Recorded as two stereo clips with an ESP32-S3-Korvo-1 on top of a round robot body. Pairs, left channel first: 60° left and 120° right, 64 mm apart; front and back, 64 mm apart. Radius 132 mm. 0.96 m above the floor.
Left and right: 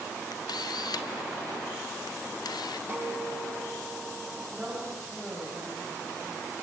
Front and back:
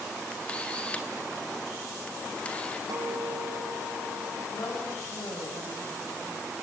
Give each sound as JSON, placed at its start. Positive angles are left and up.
{"t": 0.3, "sound": "a camera shutter", "azimuth_deg": 75, "distance_m": 0.7}
{"t": 2.9, "sound": "a guitar", "azimuth_deg": -175, "distance_m": 7.0}
{"t": 4.5, "sound": "a woman speaking", "azimuth_deg": -40, "distance_m": 6.5}